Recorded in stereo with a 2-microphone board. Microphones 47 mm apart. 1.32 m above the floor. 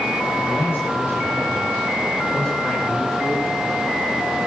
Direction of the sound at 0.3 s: 50° left (ahead or behind).